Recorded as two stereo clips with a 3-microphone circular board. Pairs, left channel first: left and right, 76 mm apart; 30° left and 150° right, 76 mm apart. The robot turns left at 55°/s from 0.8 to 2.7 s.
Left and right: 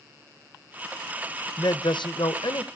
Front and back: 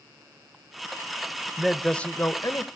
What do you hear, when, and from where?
1.6 s a man speaking: 130° left, 0.6 m; by 2.6 s 70° left, 0.6 m